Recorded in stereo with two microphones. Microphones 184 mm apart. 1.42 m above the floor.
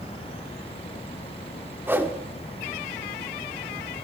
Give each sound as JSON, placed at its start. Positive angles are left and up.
{"t": 1.9, "sound": "a whoosh", "side_deg": -10, "distance_m": 1.3}